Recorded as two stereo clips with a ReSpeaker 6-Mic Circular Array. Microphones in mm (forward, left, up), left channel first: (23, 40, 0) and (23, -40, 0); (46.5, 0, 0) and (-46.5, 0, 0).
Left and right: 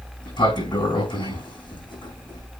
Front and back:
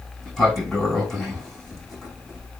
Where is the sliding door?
85° left, 5.5 m.